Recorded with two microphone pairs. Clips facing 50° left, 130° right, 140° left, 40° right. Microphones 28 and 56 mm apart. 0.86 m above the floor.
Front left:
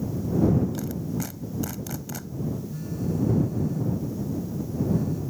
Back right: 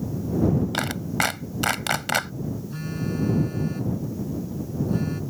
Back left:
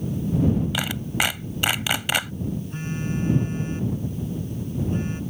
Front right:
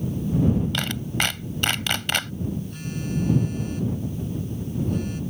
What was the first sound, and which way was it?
A clap, 140° right.